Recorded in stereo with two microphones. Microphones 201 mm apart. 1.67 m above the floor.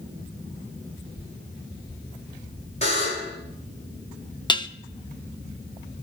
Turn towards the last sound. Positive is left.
turn(degrees=20)  # may be behind; listen again after turning